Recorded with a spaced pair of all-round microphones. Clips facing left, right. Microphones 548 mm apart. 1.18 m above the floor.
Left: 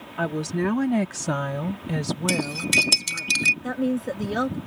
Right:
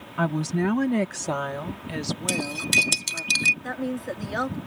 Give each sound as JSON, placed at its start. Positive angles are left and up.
{"t": 0.2, "sound": "a woman speaking", "side_deg": -30}
{"t": 2.3, "sound": "cutlery clinking", "side_deg": 10}
{"t": 3.6, "sound": "a woman speaking", "side_deg": 55}